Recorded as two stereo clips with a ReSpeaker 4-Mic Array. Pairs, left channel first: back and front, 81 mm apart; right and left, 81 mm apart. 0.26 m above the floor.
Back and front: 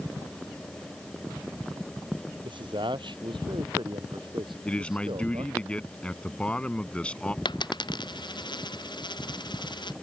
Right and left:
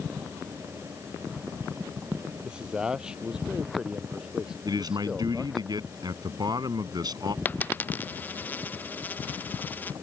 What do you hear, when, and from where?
2.4 s a man speaking: 10° left
4.7 s a man speaking: 105° left
7.5 s a dropped coin: 155° right